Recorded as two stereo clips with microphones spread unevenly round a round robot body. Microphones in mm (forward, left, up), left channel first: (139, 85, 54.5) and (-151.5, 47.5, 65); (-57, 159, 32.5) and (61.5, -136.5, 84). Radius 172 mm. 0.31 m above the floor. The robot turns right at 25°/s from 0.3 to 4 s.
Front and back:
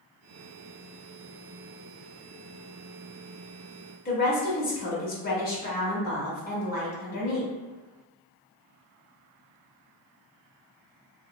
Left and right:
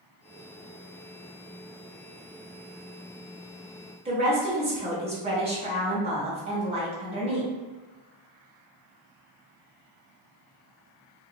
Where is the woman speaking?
5° left, 1.0 m.